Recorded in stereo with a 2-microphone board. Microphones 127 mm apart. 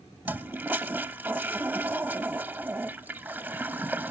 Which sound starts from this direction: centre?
A toilet flushing, at 0.2 s.